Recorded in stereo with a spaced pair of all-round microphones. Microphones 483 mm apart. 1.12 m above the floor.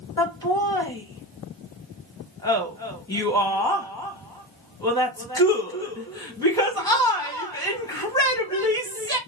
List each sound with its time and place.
0.2 s laughter: 10° left (ahead or behind), 2.0 m